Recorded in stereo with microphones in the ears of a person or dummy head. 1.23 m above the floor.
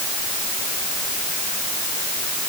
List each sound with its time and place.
Only background noise.